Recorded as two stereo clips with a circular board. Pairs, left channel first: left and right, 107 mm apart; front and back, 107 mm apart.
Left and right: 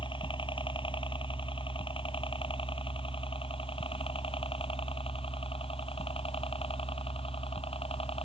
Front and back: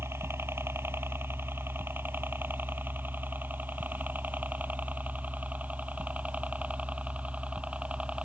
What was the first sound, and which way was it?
A helicopter, 115° left.